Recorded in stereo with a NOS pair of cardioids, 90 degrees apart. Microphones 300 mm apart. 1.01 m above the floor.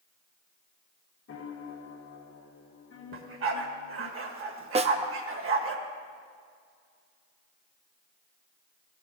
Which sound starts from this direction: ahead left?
A piano, at 1.3 s.